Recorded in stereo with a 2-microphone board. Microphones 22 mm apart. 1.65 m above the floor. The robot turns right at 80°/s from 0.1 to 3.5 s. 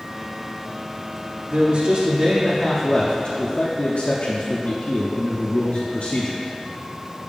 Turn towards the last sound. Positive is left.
turn(degrees=70)